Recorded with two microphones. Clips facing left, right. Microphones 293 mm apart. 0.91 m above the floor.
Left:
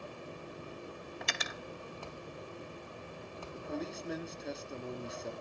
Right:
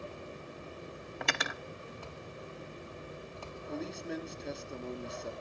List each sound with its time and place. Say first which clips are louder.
1.2 s cutlery clinking: right 7 dB; 70° right (ahead or behind), 0.6 m
3.5 s a man speaking: even; centre (ahead or behind), 1.8 m